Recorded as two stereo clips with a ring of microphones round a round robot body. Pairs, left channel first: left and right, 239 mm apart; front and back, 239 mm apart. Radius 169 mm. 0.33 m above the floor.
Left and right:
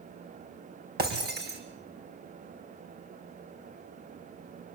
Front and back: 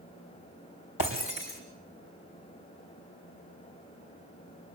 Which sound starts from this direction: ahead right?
Breaking glass, at 1.0 s.